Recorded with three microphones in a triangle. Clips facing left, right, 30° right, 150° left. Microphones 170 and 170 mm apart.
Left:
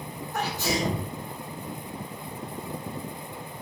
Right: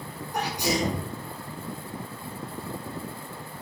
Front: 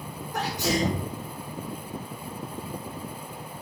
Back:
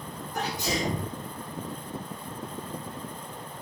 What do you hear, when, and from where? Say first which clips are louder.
0.3 s a sneeze: right 1 dB, front 4 dB; 15° right, 4 m